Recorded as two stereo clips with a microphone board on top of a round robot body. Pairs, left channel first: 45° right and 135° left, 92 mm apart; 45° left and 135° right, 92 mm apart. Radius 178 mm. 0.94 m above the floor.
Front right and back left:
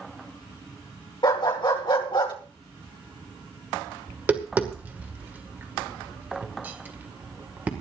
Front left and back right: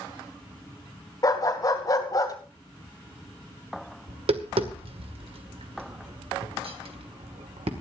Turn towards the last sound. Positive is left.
turn(degrees=-155)